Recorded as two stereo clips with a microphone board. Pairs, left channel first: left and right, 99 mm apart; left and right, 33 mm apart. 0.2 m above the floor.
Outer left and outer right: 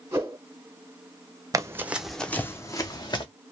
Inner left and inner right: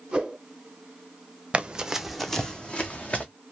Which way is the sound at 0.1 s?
25° right (ahead or behind).